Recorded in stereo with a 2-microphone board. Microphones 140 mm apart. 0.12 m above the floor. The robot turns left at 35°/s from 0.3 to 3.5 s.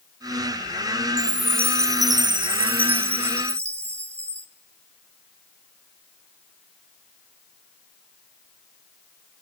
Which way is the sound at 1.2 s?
5° right.